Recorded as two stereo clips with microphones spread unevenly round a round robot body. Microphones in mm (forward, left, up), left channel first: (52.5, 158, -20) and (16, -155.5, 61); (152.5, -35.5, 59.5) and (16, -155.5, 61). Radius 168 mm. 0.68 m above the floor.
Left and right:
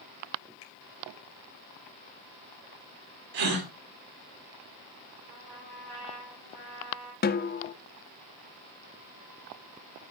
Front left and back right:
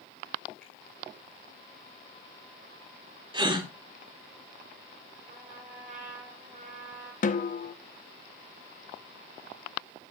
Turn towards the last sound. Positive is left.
turn(degrees=60)